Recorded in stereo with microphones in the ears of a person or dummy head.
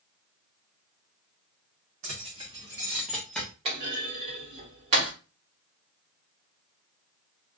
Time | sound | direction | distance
2.0 | keys jangling | 40° right (ahead or behind) | 1.0 m
3.6 | a clunk | 35° right (ahead or behind) | 1.3 m